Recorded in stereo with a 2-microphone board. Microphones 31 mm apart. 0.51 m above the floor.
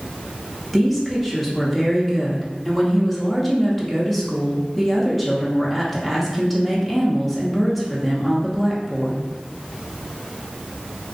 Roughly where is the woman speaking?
Centre.